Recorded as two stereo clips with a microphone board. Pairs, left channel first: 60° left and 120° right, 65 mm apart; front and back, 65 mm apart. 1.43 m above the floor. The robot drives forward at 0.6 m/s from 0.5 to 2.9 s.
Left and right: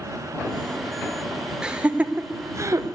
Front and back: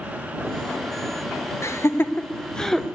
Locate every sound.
1.6 s laughter: 45° right, 1.0 m; by 2.9 s 95° right, 0.7 m